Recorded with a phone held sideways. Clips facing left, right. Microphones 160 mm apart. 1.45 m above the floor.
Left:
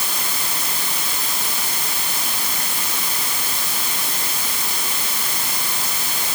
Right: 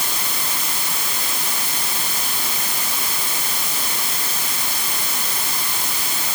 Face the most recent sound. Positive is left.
No sound to turn to.